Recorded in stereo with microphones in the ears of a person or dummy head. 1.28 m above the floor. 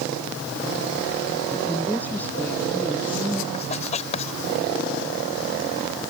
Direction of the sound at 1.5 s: 10° left (ahead or behind).